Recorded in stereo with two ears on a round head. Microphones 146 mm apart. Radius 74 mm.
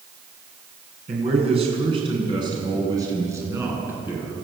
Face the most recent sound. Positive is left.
turn(degrees=-10)  # may be behind; listen again after turning